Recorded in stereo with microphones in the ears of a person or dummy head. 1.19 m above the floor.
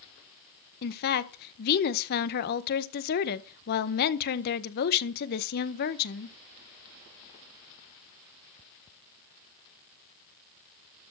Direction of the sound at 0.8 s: 55° left (ahead or behind).